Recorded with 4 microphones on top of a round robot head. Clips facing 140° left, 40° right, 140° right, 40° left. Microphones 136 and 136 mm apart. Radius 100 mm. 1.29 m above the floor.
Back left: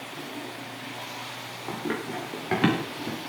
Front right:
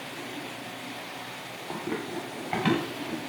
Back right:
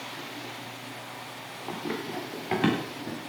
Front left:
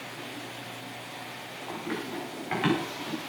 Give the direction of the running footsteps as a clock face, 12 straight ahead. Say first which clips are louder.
Back left 2 dB, back right 1 dB; 6 o'clock.